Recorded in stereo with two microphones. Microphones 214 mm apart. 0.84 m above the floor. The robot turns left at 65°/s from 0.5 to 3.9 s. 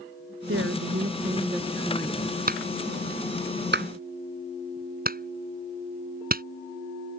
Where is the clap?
45° right (ahead or behind).